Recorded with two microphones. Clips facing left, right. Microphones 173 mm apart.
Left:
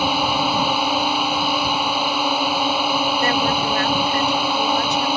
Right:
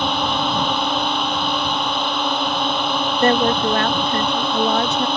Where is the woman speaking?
50° right (ahead or behind).